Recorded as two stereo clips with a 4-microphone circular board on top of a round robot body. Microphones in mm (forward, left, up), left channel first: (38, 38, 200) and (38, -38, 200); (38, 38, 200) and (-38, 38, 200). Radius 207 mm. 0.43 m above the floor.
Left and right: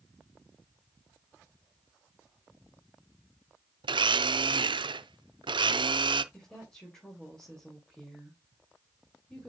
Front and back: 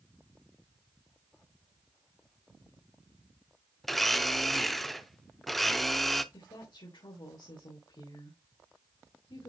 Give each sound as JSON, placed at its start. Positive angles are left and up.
{"t": 3.8, "sound": "a blender", "azimuth_deg": -90, "distance_m": 0.7}
{"t": 6.3, "sound": "a woman speaking", "azimuth_deg": 10, "distance_m": 3.5}